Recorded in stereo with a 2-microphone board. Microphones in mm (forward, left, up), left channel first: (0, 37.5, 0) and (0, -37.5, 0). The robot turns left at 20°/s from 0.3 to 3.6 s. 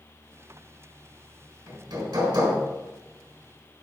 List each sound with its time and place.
1.7 s hammering: 65° right (ahead or behind), 4 m; by 2.6 s 75° right (ahead or behind), 4 m